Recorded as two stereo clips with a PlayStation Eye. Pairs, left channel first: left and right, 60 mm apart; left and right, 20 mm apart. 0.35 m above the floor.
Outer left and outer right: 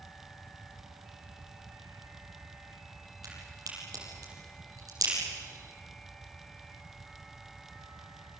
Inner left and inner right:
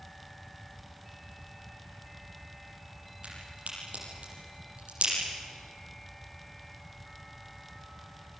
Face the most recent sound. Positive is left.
turn(degrees=-70)  # may be behind; listen again after turning